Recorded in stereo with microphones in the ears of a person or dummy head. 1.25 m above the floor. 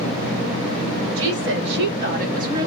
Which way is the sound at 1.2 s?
75° right (ahead or behind).